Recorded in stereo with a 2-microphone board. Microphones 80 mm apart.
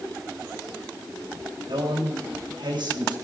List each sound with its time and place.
1.7 s a man speaking: 70° right (ahead or behind), 4.5 m